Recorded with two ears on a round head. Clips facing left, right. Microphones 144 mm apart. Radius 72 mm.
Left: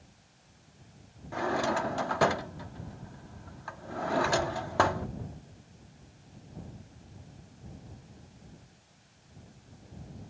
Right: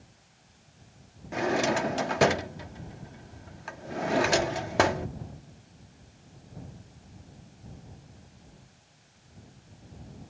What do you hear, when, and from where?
1.3 s a drawer: 25° right (ahead or behind)